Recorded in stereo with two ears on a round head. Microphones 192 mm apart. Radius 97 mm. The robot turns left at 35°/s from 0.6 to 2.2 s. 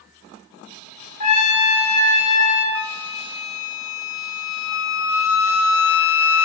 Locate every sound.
1.2 s a trumpet: 95° left, 0.9 m; by 2.6 s 60° left, 0.9 m
2.8 s a flute: 70° left (ahead or behind), 0.5 m